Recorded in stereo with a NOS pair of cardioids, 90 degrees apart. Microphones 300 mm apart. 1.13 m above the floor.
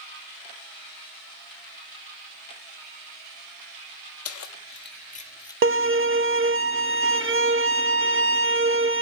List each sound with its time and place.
4.2 s keys jangling: 55° left, 1.5 m; by 5.5 s 10° left, 1.3 m
5.6 s a violin: 45° right, 0.8 m